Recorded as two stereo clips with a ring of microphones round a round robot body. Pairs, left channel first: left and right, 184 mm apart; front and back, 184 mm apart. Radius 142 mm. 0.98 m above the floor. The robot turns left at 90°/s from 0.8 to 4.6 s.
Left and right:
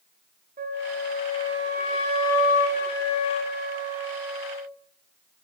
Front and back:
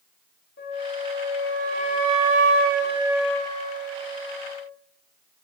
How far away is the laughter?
No laughter in this recording.